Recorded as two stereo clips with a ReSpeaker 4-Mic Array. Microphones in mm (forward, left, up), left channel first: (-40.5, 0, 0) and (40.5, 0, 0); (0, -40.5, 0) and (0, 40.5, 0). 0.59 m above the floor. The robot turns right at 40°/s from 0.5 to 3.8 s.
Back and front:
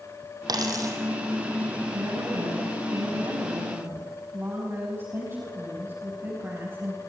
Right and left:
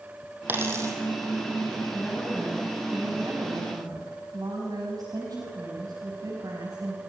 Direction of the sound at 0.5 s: 25° left.